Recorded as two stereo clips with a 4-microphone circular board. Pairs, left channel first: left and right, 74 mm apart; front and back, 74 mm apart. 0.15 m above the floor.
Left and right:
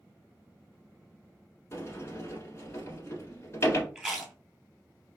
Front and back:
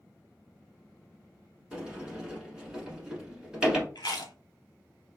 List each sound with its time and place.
1.7 s a sliding door: 105° left, 0.9 m
4.0 s chewing: 10° right, 0.7 m